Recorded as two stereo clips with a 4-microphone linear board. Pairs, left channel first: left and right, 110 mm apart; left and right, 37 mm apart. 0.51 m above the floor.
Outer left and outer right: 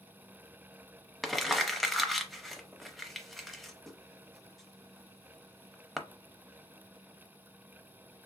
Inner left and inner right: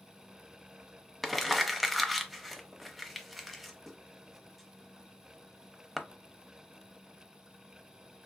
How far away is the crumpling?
About 0.5 m.